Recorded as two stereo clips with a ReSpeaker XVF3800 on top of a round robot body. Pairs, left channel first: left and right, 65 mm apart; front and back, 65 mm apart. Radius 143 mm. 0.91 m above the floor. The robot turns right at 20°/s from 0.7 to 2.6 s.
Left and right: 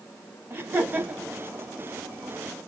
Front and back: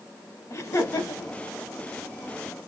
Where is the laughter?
30° right, 2 m; by 1.4 s 15° right, 2 m.